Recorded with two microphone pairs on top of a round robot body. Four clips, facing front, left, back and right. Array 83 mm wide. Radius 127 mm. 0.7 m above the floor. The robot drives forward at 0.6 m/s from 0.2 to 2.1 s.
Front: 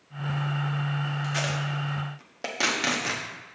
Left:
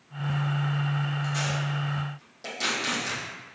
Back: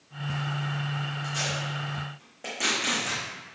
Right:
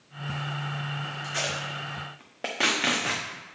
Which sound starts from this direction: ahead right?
Tape being pulled, at 1.2 s.